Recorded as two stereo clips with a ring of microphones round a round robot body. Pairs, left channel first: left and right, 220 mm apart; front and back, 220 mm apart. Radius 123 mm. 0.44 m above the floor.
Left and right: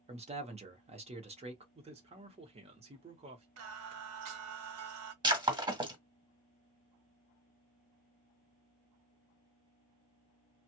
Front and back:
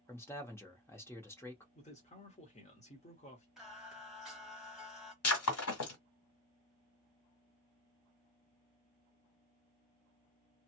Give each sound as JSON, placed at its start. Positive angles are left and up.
{"t": 0.1, "sound": "a man speaking", "azimuth_deg": -70, "distance_m": 0.9}
{"t": 1.8, "sound": "a man speaking", "azimuth_deg": -45, "distance_m": 1.1}
{"t": 3.6, "sound": "singing", "azimuth_deg": -90, "distance_m": 0.9}
{"t": 5.2, "sound": "breaking glass", "azimuth_deg": -20, "distance_m": 1.7}